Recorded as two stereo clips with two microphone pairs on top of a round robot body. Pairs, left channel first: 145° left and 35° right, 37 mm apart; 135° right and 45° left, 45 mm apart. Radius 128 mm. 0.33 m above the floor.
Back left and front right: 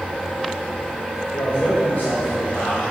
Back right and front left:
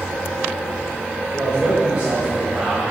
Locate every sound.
1.3 s a man speaking: 115° left, 2 m